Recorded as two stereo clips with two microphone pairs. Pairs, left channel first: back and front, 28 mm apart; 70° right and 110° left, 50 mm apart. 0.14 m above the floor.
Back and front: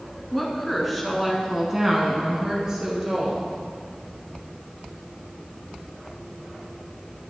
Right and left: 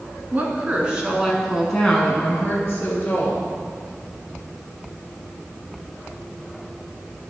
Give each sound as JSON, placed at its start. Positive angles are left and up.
{"t": 0.3, "sound": "a woman speaking", "azimuth_deg": 95, "distance_m": 1.8}